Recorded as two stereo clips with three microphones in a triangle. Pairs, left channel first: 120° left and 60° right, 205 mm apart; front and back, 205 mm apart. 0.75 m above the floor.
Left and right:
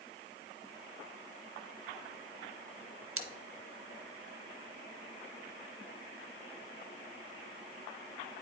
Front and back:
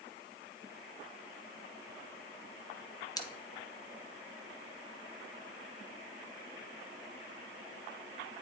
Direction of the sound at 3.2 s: 70° right.